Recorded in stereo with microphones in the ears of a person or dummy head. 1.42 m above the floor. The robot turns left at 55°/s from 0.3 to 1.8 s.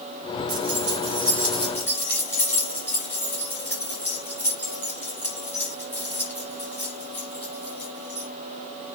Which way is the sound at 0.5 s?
55° right (ahead or behind).